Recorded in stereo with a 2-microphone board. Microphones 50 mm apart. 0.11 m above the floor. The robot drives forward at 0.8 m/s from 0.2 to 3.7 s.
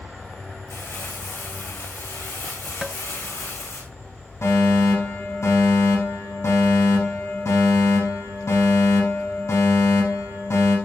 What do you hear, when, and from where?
0.7 s crumpling: 70° left (ahead or behind), 6 m; by 3.8 s 75° left (ahead or behind), 6 m
2.8 s tapping: 5° left (ahead or behind), 0.8 m
4.4 s a fire alarm: 70° left (ahead or behind), 8 m